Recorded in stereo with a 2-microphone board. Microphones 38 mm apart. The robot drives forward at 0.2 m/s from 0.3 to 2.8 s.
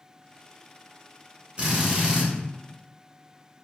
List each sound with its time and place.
1.6 s a drill: 30° right (ahead or behind), 1.1 m